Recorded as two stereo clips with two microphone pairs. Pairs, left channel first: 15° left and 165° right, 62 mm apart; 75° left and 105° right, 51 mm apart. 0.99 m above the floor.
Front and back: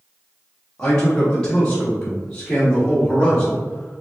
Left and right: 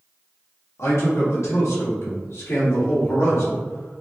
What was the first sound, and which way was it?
A man speaking, 85° left.